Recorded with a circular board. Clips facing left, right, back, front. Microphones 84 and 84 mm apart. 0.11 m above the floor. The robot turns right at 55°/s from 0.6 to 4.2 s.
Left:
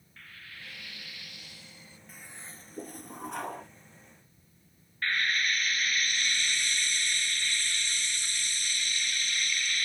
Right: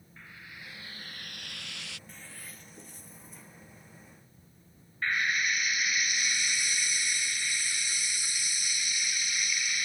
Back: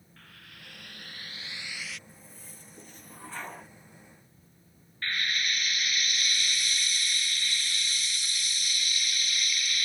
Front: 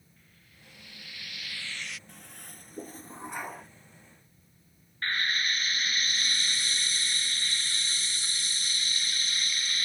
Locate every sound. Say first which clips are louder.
0.2 s frying: right 1 dB, back 11 dB; 165° right; by 2.0 s 85° right
2.1 s a toilet flushing: even, front 2 dB; 5° left; by 3.7 s 95° left
5.0 s frying: even, front 2 dB; 20° right